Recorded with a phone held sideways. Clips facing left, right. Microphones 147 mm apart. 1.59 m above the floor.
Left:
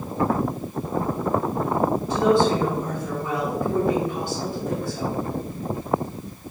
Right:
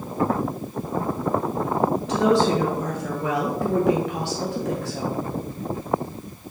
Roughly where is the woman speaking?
Right.